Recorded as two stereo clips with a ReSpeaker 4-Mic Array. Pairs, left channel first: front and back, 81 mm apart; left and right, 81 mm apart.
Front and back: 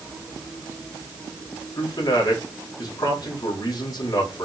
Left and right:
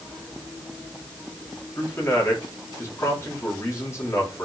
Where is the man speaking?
35° left, 4.5 m.